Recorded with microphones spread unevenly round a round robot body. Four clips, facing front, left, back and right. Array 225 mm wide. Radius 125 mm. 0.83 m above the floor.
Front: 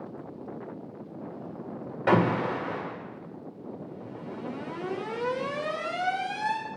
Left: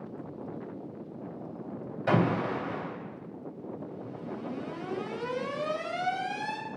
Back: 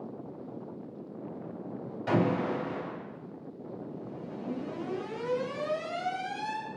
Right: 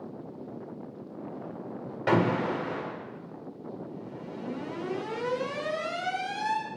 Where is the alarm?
30° right, 1.9 m.